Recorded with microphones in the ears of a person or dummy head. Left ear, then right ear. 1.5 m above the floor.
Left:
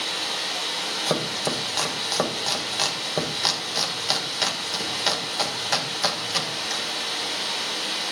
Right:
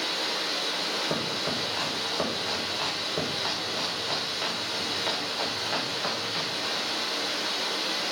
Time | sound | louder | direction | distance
0.0 | running water | left 2 dB | 15° left (ahead or behind) | 5 m
1.1 | chopping | left 4 dB | 85° left | 1.5 m